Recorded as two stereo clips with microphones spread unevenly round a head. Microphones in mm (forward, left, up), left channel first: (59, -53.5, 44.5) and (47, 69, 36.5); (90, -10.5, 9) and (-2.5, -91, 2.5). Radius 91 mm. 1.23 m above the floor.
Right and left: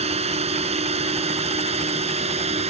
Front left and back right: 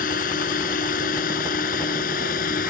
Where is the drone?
65° left.